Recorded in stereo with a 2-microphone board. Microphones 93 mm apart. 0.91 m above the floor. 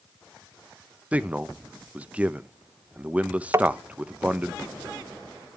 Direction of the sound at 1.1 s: 15° right (ahead or behind).